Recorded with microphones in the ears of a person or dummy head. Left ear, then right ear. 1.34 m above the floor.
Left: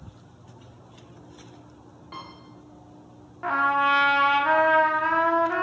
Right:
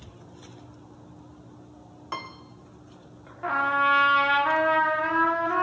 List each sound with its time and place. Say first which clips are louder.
2.1 s a piano: right 5 dB; 40° right (ahead or behind), 0.6 m
3.4 s a trumpet: left 1 dB; 5° left (ahead or behind), 0.5 m